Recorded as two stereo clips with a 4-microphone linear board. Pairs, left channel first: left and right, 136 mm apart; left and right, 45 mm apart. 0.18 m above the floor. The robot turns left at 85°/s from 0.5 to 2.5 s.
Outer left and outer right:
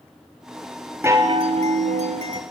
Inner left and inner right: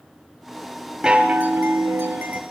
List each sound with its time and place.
1.0 s a chime: 20° right, 2 m; by 2.4 s 135° right, 2 m